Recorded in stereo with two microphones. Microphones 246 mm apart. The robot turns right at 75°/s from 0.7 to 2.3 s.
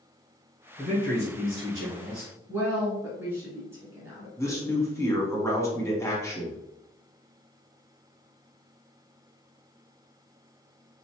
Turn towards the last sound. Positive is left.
turn(degrees=10)  # may be behind; listen again after turning